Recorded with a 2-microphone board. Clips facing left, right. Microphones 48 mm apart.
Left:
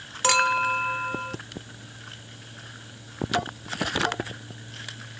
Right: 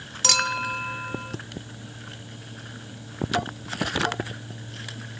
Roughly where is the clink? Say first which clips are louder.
Left 4 dB; left.